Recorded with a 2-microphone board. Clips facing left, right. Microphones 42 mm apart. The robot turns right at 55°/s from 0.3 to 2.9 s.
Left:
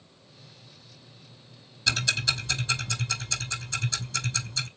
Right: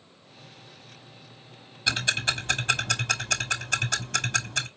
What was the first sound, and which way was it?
Ticking, 20° right (ahead or behind).